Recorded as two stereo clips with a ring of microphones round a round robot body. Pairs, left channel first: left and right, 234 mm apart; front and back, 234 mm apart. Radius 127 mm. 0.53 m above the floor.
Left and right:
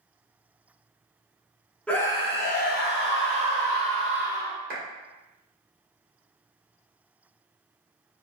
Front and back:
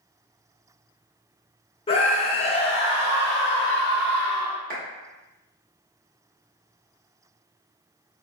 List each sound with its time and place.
1.9 s a scream: 10° left, 0.6 m; by 4.6 s 70° left, 1.6 m
4.7 s a clap: 130° right, 1.8 m